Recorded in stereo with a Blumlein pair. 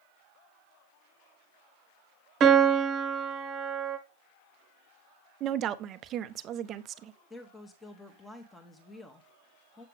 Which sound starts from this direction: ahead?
A woman speaking, at 7.3 s.